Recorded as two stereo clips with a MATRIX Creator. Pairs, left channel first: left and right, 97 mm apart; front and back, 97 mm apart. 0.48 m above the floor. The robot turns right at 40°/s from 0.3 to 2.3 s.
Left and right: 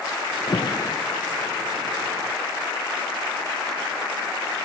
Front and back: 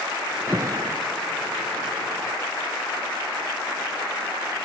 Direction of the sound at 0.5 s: 120° left.